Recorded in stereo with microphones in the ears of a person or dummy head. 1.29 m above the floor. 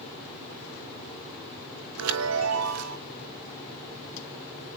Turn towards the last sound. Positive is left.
turn(degrees=-80)